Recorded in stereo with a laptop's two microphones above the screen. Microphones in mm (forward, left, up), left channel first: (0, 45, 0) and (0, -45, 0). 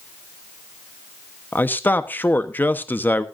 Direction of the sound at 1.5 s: 20° left (ahead or behind).